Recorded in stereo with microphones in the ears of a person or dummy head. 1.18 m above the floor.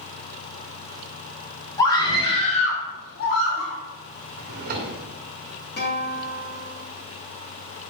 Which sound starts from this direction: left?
A guitar, at 5.8 s.